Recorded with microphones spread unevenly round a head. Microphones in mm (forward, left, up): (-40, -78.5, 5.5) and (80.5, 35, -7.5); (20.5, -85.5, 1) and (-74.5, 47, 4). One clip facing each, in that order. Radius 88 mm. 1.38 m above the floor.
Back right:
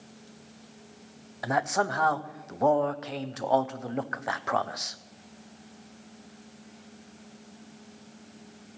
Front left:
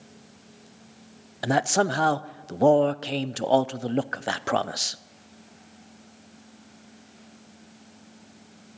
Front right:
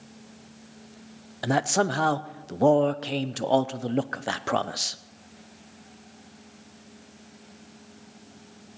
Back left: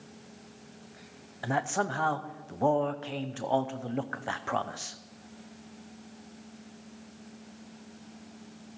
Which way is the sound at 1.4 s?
5° right.